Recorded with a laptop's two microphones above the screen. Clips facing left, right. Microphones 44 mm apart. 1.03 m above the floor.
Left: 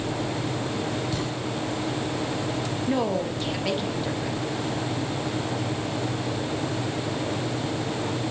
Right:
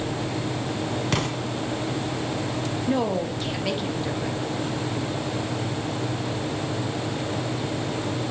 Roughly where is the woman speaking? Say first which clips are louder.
Right 1 dB; centre.